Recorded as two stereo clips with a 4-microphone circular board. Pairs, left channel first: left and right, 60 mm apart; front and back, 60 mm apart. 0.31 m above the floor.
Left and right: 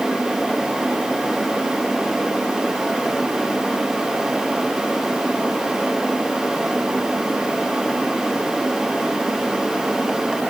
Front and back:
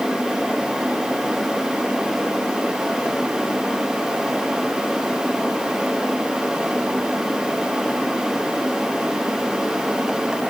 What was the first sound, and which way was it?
Only background noise.